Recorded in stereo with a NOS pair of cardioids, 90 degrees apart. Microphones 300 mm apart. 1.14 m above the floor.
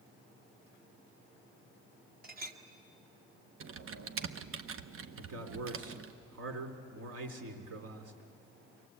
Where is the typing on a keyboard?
50° right, 0.9 m.